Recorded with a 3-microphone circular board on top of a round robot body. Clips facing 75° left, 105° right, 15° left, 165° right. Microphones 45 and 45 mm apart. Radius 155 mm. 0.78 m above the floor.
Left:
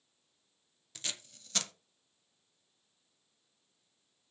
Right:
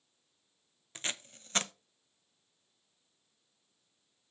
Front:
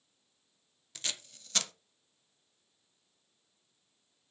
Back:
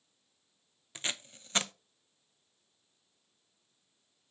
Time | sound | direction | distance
0.9 | tape being pulled | 125° right | 0.9 m